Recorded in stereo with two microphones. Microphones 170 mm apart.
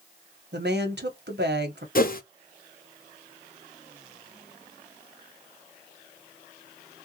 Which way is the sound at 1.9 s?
55° left (ahead or behind).